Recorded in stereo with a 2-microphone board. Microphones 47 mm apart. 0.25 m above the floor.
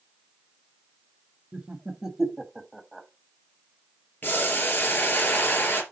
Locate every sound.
1.5 s laughter: 20° right (ahead or behind), 0.9 m; by 3.1 s 5° left (ahead or behind), 1.2 m
4.2 s boiling: 45° left (ahead or behind), 3 m